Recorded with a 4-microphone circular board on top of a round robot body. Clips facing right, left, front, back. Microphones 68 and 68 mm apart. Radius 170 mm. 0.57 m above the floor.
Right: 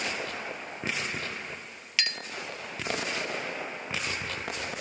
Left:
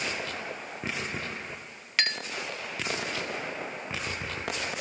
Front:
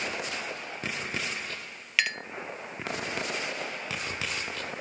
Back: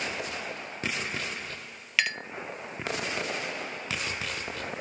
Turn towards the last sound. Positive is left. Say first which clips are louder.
# left 3 dB, even
turn(degrees=90)